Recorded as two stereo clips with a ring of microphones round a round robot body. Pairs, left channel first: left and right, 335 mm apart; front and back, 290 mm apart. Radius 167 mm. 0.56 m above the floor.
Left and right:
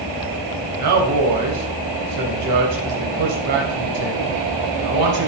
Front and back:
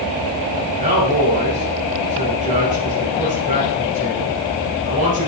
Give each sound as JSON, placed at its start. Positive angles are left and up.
{"t": 0.8, "sound": "a man speaking", "azimuth_deg": -115, "distance_m": 3.0}